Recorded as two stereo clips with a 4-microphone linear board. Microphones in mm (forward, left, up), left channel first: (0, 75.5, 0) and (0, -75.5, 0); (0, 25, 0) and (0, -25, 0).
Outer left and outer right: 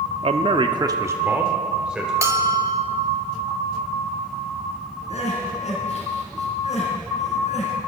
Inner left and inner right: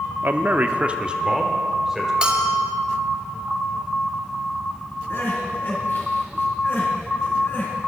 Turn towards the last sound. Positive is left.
turn(degrees=50)  # may be behind; listen again after turning